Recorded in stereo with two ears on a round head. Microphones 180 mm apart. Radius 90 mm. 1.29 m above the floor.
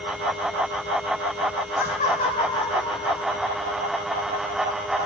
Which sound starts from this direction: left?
Laughter, at 1.8 s.